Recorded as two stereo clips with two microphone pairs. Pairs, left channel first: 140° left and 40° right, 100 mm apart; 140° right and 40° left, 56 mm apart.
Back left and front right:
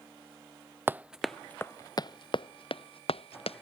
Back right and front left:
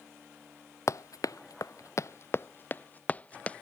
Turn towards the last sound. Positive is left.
turn(degrees=150)